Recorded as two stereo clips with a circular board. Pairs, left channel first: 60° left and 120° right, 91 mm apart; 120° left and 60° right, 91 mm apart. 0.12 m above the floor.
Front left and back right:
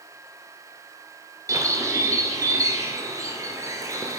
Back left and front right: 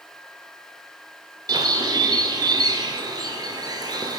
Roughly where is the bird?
Right.